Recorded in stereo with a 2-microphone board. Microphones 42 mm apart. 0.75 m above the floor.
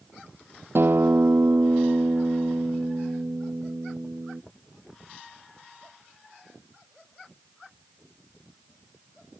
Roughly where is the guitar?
Right.